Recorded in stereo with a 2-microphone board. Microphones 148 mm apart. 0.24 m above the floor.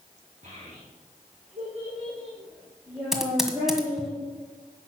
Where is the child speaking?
60° right (ahead or behind), 6.5 m; by 4.1 s 15° right (ahead or behind), 4.5 m.